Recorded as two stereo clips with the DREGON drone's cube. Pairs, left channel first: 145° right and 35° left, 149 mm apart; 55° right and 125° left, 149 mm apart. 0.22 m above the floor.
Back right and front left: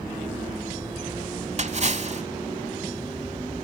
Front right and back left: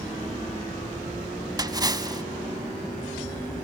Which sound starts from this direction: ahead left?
A splash, at 1.6 s.